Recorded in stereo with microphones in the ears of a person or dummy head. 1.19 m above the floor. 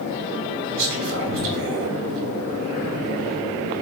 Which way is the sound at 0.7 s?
65° right (ahead or behind).